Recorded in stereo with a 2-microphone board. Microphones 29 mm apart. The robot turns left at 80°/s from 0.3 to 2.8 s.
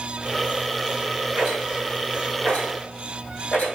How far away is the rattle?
About 1.7 m.